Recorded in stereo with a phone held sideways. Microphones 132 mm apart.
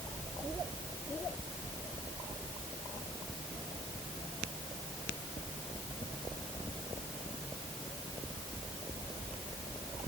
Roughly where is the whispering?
I don't hear whispering.